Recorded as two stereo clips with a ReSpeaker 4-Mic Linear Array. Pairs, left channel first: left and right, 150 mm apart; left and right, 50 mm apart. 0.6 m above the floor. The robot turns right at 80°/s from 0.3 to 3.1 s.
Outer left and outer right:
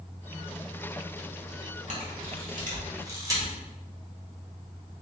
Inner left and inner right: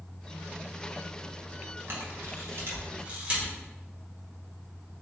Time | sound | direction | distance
1.9 | a camera shutter | 55° right (ahead or behind) | 1.3 m